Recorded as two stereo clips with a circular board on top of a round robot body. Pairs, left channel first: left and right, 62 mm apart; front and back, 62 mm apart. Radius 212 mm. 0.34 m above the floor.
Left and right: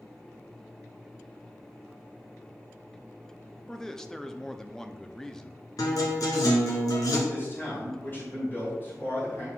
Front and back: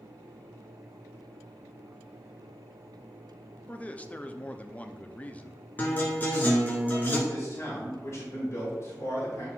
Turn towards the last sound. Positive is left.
turn(degrees=40)